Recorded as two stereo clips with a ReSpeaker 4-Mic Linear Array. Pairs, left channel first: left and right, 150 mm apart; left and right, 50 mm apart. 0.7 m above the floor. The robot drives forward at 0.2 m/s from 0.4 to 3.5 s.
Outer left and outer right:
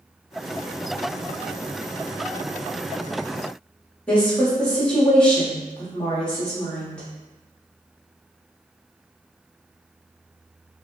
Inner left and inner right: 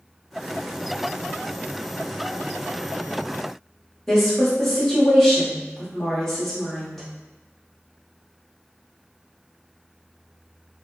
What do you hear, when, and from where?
4.1 s a woman speaking: 5° left (ahead or behind), 1.0 m